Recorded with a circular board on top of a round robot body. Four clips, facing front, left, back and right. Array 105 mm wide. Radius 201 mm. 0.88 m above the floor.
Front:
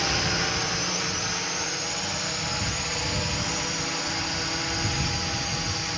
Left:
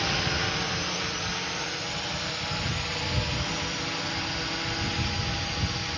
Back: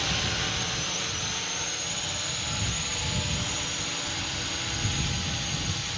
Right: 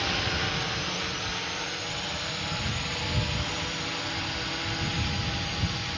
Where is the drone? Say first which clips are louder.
Left 1 dB, front 5 dB; 10° left.